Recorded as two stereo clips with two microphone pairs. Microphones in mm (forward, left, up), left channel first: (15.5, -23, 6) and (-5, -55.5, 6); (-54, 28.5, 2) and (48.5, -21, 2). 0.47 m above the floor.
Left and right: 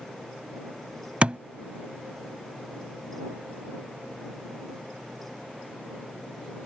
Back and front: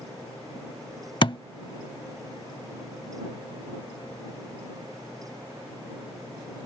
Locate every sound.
1.2 s a thud: 170° right